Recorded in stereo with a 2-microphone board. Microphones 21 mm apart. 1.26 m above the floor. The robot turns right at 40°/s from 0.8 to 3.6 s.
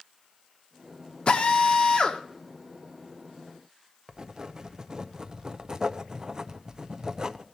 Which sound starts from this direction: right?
Writing, at 4.1 s.